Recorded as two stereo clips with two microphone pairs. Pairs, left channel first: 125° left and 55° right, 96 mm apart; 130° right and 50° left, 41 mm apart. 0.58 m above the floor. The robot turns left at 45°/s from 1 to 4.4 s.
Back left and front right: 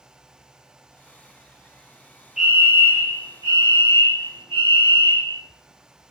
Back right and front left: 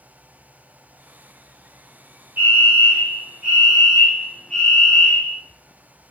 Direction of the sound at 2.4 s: 30° left.